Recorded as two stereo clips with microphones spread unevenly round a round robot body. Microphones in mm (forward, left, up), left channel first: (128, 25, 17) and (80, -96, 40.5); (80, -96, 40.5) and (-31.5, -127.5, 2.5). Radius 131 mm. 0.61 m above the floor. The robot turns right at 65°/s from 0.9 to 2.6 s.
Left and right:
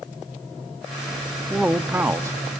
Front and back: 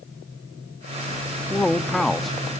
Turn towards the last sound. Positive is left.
turn(degrees=-155)